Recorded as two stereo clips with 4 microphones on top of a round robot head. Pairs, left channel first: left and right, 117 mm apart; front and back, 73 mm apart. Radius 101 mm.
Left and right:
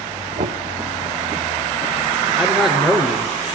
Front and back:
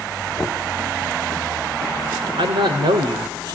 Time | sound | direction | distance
0.4 | knocking | 90° right | 0.9 m
2.4 | a man speaking | 175° right | 2.5 m